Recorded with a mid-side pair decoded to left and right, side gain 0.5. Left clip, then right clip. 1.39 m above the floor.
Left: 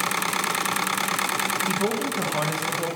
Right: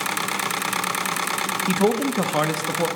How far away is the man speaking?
About 1.0 m.